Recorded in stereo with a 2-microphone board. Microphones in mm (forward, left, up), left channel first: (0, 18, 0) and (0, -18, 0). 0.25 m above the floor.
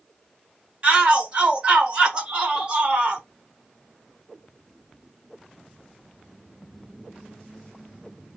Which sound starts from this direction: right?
A shout, at 0.8 s.